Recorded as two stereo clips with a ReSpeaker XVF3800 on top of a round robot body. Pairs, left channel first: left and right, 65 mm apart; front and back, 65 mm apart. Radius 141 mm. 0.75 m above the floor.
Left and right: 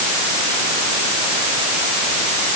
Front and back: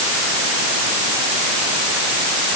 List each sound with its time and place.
Only background noise.